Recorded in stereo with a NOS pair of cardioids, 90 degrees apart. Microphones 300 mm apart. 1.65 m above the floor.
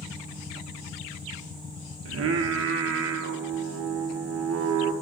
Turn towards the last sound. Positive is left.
turn(degrees=-50)